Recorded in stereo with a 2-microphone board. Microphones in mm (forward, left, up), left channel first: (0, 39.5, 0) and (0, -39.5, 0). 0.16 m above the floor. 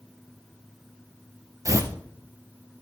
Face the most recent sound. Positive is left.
turn(degrees=-40)  # may be behind; listen again after turning